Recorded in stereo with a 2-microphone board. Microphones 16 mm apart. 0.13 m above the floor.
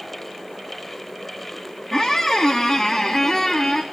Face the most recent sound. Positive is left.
turn(degrees=15)  # may be behind; listen again after turning